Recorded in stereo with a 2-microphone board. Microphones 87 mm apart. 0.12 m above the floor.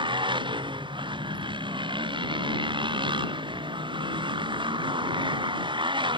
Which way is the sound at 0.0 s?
70° right (ahead or behind).